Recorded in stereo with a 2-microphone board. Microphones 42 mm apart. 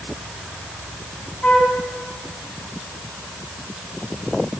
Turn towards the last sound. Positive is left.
turn(degrees=30)  # may be behind; listen again after turning